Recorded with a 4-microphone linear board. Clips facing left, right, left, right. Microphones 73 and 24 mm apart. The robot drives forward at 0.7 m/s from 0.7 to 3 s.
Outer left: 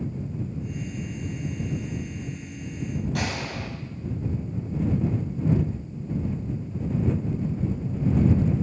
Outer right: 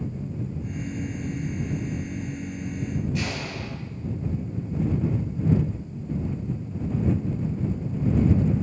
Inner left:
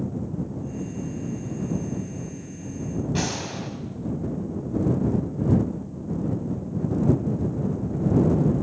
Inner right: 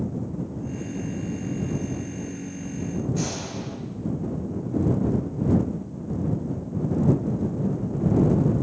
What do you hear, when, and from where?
3.1 s a gunshot: 75° left (ahead or behind), 3 m